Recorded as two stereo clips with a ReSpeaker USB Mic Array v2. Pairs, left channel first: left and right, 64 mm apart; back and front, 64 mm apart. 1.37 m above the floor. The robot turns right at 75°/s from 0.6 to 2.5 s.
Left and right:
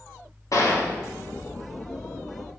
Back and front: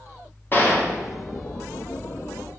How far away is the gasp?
I don't hear a gasp.